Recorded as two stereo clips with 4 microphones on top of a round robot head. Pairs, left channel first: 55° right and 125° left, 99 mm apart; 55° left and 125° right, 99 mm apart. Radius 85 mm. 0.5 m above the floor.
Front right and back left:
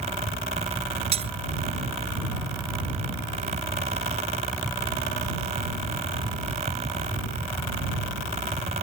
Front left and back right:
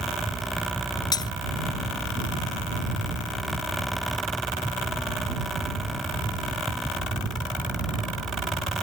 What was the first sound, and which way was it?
Breaking glass, 105° left.